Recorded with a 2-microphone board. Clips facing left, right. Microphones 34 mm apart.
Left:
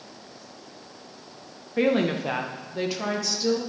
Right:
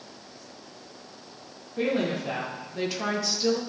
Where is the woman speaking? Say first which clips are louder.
Left 4 dB; 65° left (ahead or behind), 1.1 m; by 3.6 s 15° right (ahead or behind), 1.3 m.